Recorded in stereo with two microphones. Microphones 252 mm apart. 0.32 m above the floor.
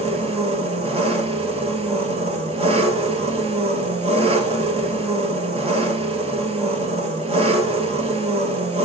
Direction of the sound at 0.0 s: 25° right (ahead or behind).